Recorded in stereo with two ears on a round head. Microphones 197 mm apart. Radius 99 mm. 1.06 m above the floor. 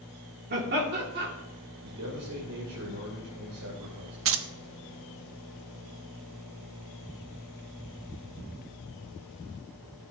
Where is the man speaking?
80° right, 3.5 m.